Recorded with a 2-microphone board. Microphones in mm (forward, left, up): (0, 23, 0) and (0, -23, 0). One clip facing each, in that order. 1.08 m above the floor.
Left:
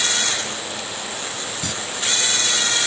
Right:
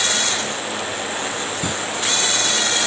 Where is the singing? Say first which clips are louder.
Right 4 dB; 20° right (ahead or behind).